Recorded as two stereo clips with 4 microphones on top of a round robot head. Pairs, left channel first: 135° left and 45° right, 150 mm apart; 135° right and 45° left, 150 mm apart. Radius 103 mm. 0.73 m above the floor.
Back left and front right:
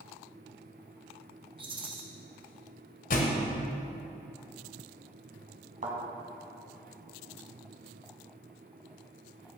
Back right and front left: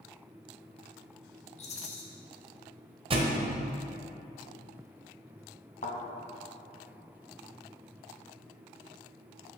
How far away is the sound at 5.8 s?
About 1.7 m.